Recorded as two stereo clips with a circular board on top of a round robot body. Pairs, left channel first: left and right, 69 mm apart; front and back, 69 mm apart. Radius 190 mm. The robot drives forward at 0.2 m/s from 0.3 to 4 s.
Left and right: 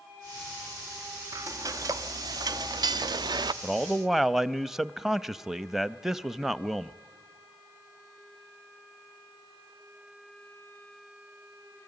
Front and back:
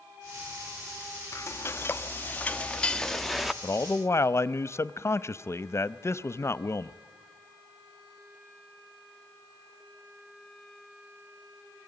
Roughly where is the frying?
Ahead right.